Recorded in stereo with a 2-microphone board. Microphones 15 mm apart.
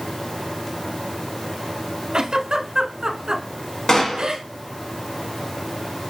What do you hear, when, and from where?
2.1 s a giggle: 60° right (ahead or behind), 0.8 m
3.9 s a gunshot: 35° left (ahead or behind), 0.8 m